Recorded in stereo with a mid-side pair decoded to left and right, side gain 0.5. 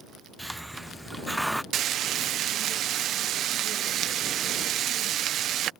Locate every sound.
0.4 s a hiss: 5° right
1.7 s frying: 65° right